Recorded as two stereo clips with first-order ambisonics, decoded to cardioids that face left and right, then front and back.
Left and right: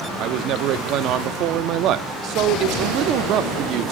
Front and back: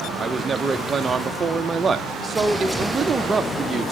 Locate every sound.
0.2 s a man speaking: 110° right, 0.6 m